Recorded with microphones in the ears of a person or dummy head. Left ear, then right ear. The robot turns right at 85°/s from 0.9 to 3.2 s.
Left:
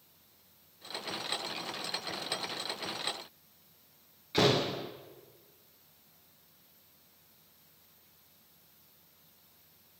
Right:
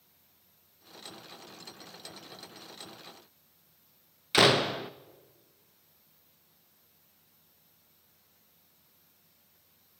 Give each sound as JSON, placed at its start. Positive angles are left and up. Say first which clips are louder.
{"t": 4.3, "sound": "a door slam", "louder": "right 5 dB", "side_deg": -45, "distance_m": 0.6}